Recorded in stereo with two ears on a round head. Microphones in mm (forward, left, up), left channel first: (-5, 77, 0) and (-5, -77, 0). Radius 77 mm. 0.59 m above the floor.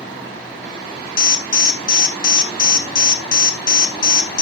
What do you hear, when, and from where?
1.2 s an alarm: 50° left (ahead or behind), 1.6 m